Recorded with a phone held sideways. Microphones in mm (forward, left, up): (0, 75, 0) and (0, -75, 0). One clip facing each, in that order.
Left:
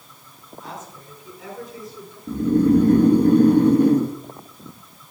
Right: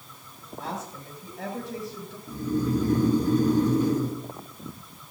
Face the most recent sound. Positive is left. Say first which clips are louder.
# left 10 dB
turn(degrees=60)  # may be behind; listen again after turning